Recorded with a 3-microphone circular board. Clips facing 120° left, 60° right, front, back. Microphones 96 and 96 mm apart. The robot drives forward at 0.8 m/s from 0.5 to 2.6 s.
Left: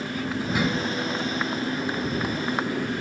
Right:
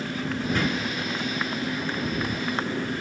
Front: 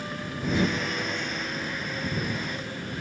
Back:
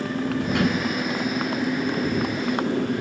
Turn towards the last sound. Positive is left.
turn(degrees=-160)